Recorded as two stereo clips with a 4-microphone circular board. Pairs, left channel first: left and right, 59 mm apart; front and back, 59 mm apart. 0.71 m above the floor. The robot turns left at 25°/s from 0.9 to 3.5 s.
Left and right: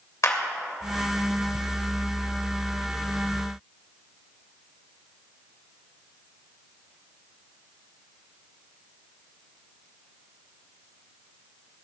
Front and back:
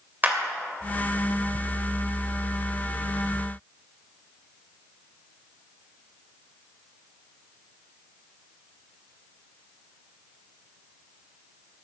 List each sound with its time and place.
0.2 s a clap: 125° left, 2.5 m